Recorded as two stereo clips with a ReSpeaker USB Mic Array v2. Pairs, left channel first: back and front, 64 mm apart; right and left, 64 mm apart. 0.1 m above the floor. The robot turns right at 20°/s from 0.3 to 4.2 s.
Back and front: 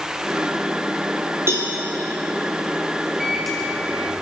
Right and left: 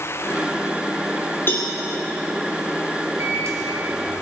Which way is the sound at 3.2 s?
85° left.